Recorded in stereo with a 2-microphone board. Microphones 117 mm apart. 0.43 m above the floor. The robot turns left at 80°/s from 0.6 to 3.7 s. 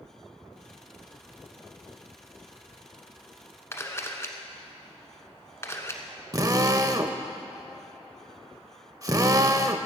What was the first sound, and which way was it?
A camera shutter, 25° left (ahead or behind).